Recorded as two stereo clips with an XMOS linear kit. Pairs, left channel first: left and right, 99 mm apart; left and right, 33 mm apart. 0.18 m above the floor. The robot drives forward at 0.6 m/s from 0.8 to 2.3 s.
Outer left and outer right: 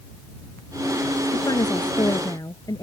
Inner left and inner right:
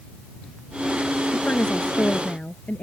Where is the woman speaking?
45° left (ahead or behind); by 2.8 s 35° left (ahead or behind).